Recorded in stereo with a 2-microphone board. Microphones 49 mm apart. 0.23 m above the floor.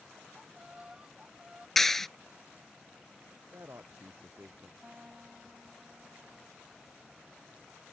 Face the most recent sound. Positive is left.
turn(degrees=-20)  # may be behind; listen again after turning